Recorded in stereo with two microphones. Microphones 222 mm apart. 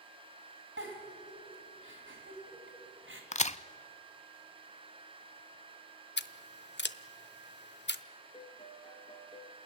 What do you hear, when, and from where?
0.8 s a giggle: 70° right (ahead or behind), 3 m
3.3 s a crack: 35° left (ahead or behind), 0.5 m
6.2 s scissors: 60° left (ahead or behind), 0.7 m
8.3 s a piano: 25° left (ahead or behind), 1.5 m